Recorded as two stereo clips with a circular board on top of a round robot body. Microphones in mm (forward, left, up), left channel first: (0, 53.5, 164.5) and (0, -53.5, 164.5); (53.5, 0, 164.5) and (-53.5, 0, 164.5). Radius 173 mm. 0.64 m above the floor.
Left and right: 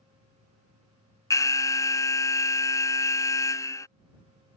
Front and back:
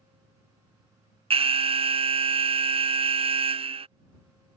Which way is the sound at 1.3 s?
150° left.